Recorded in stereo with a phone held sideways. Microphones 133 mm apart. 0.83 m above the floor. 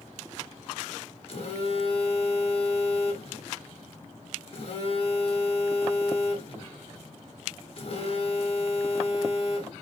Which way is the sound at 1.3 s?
45° left (ahead or behind).